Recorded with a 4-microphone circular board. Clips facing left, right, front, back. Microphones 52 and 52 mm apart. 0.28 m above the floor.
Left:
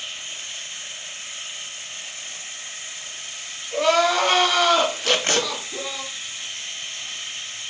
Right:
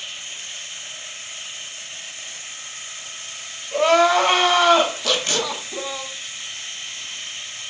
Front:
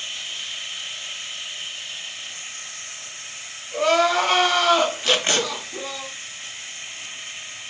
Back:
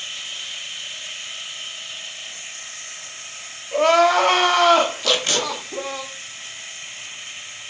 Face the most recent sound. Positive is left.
turn(degrees=50)